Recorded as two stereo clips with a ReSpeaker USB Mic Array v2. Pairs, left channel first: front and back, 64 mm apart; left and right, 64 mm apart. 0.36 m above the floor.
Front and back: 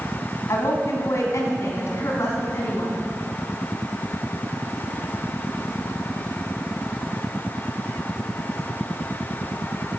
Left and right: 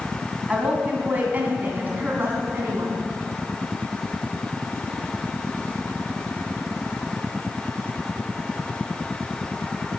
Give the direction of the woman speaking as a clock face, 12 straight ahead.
1 o'clock.